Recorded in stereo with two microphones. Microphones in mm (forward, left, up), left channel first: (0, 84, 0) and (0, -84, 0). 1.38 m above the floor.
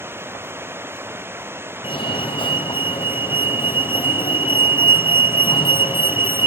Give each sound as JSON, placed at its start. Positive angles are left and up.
{"t": 0.0, "sound": "running water", "side_deg": -15}
{"t": 1.8, "sound": "a fire alarm", "side_deg": 30}